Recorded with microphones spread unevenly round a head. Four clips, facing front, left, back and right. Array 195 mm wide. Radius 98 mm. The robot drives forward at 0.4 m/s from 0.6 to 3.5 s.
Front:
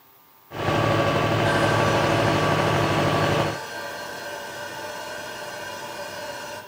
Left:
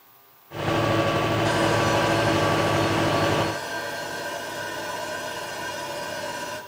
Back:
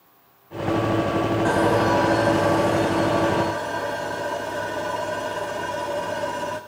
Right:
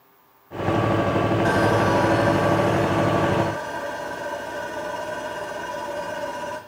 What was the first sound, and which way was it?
Sawing, 145° right.